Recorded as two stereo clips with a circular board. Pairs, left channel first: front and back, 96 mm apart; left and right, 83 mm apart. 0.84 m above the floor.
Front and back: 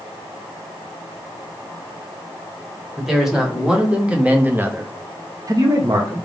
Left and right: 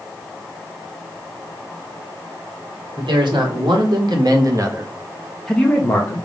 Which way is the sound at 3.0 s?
95° right.